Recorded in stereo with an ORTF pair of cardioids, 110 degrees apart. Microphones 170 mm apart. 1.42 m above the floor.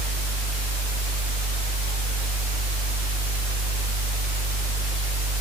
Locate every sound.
0.0 s a fan: 40° left, 1.5 m